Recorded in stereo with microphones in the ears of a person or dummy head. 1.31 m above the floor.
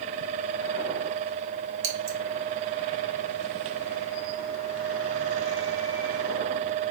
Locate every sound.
1.8 s scissors: 70° right (ahead or behind), 2.5 m